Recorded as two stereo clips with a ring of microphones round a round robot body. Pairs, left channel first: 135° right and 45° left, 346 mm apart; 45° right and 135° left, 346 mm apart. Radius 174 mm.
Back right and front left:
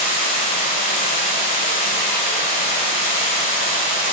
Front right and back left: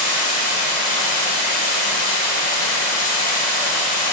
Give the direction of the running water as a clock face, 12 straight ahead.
2 o'clock.